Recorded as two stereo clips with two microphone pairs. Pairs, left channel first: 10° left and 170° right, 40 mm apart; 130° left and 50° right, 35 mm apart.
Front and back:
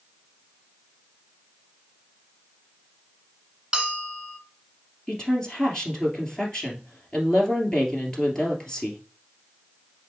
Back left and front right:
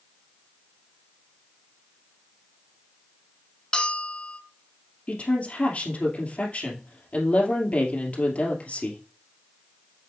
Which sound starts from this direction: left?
A woman speaking, at 5.1 s.